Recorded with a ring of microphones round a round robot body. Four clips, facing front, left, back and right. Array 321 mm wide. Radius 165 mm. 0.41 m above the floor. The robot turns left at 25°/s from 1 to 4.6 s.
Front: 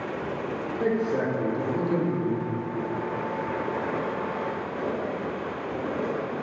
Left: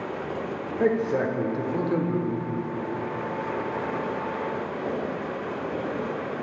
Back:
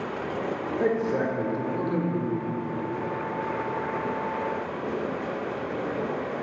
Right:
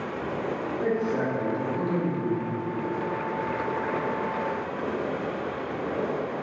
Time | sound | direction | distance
0.8 | a man speaking | 105° left | 1.0 m